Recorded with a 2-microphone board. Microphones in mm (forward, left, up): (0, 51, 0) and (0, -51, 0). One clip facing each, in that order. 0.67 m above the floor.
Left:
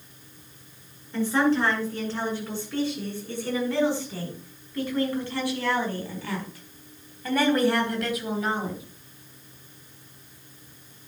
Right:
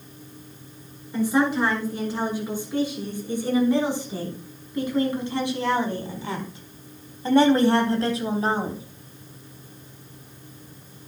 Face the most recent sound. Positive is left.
turn(degrees=-35)  # may be behind; listen again after turning